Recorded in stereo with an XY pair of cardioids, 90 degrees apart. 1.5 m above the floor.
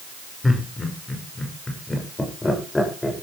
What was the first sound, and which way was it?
Laughter, 25° left.